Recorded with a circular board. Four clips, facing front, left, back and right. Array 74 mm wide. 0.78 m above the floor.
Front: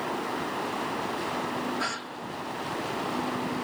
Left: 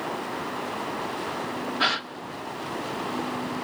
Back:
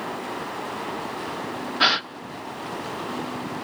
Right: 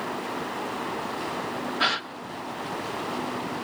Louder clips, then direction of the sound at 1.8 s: Even, back 9 dB; 175° left.